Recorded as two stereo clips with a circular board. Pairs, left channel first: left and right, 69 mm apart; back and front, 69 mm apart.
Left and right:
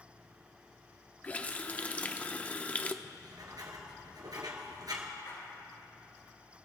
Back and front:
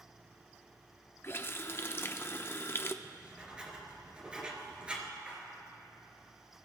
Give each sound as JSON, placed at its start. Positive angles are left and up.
{"t": 1.2, "sound": "a running tap", "azimuth_deg": 145, "distance_m": 0.5}
{"t": 3.0, "sound": "writing", "azimuth_deg": -75, "distance_m": 2.0}
{"t": 5.2, "sound": "a splash", "azimuth_deg": 75, "distance_m": 6.0}